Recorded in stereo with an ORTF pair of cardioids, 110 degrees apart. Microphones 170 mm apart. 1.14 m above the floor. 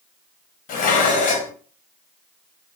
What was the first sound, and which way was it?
Dishes clattering, 55° left.